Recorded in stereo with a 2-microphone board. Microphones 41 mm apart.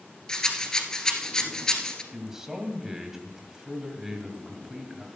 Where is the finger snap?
I don't hear a finger snap.